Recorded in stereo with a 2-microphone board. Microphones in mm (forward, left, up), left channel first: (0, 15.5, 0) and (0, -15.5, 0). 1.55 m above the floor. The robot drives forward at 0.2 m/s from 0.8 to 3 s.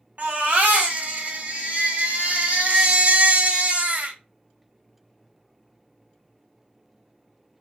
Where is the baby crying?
55° right (ahead or behind), 2 m; by 4.2 s 50° right (ahead or behind), 2 m.